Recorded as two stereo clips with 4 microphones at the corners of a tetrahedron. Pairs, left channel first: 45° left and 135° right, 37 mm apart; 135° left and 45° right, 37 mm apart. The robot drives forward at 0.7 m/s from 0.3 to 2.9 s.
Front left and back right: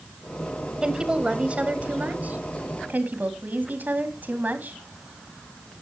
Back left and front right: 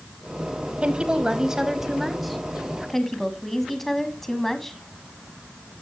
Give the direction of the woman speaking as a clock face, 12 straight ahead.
3 o'clock.